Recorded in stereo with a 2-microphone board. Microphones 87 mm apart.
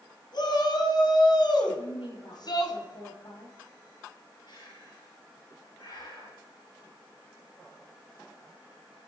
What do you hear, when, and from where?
0.3 s a shout: 60° left (ahead or behind), 3 m; by 2.8 s 55° left (ahead or behind), 3 m
1.8 s a woman speaking: 75° left (ahead or behind), 7.5 m
4.5 s breathing: 65° left (ahead or behind), 7 m